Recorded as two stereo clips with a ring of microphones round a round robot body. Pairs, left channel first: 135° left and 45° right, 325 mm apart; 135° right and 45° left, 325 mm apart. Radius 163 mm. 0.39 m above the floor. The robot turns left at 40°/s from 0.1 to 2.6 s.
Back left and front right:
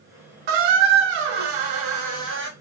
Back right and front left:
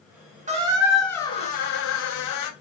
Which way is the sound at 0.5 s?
25° right.